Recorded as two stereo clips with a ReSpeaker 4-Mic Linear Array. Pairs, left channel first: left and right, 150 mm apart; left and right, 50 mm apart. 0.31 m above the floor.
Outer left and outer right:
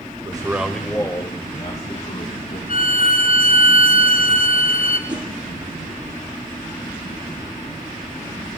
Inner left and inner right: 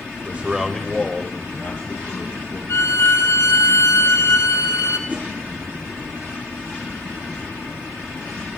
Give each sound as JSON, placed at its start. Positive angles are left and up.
{"t": 0.2, "sound": "a man speaking", "side_deg": -30, "distance_m": 1.2}
{"t": 2.7, "sound": "a violin", "side_deg": 70, "distance_m": 1.3}
{"t": 5.1, "sound": "a whoosh", "side_deg": -30, "distance_m": 1.6}